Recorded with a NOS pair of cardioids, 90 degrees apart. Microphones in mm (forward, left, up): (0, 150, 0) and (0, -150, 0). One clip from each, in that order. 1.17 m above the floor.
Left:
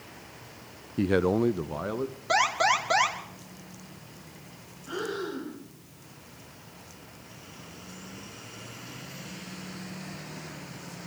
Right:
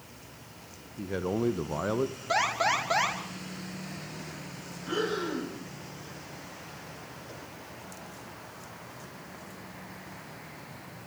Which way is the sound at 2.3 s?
20° left.